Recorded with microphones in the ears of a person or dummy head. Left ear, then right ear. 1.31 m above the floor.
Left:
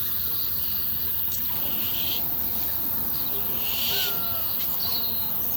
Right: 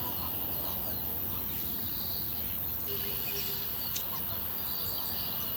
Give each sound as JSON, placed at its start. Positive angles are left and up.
{"t": 0.0, "sound": "an insect", "side_deg": 65, "distance_m": 5.5}